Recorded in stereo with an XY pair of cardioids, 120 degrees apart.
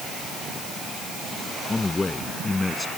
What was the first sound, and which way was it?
A man speaking, 20° left.